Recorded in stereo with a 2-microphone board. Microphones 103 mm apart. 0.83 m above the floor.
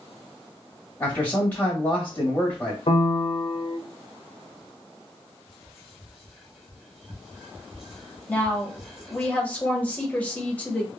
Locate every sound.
1.0 s a man speaking: 15° left (ahead or behind), 1.3 m
2.9 s a piano: 60° left (ahead or behind), 0.5 m
5.5 s whispering: 5° right (ahead or behind), 0.7 m
8.3 s a woman speaking: 15° left (ahead or behind), 1.0 m